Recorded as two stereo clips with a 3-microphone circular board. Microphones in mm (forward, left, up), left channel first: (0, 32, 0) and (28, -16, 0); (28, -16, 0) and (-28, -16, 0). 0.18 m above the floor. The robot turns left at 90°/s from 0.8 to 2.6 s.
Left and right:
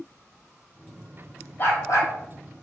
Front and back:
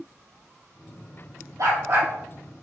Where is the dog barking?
170° left, 2.5 m; by 2.1 s 120° left, 2.5 m.